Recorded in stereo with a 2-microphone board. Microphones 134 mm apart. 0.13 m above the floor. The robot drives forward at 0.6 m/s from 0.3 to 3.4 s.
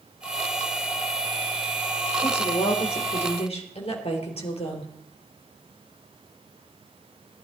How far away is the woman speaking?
About 3.5 m.